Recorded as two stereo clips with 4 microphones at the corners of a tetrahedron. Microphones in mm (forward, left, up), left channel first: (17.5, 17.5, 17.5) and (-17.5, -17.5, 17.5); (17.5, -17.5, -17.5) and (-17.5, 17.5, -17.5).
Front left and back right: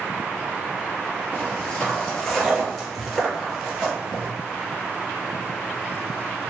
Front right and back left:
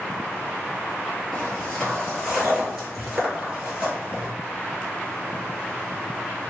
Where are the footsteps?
20° left, 1.9 m; by 4.3 s straight behind, 1.7 m.